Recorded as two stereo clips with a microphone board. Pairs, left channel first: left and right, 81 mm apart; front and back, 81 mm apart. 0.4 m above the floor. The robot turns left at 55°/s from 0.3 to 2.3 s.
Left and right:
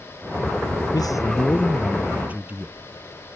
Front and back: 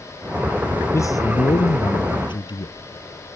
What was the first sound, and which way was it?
A man speaking, 55° left.